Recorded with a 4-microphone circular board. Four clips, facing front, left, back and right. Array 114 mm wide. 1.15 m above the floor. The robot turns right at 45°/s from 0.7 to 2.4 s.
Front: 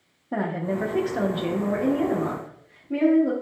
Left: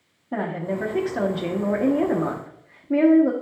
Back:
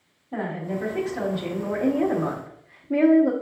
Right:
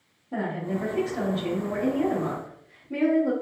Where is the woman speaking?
30° left, 0.6 m; by 3.3 s 105° left, 0.6 m.